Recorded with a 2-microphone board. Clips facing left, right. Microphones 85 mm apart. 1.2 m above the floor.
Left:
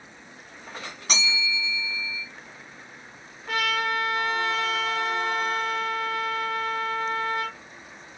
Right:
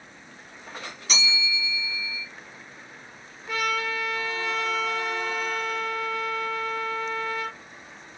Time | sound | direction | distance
1.1 | a bell | 60° left (ahead or behind) | 1.9 m
3.5 | a trumpet | 75° left (ahead or behind) | 1.0 m